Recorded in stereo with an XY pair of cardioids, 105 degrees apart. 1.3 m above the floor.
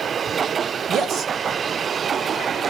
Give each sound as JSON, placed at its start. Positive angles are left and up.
{"t": 0.9, "sound": "a man speaking", "azimuth_deg": -65, "distance_m": 1.3}